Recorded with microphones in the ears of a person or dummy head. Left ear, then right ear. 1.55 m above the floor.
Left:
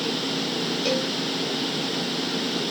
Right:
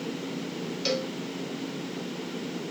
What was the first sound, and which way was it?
A cowbell, 35° right (ahead or behind).